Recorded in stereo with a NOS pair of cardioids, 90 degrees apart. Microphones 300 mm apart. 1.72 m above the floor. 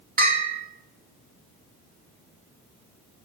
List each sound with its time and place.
0.2 s a bell: 25° right, 3 m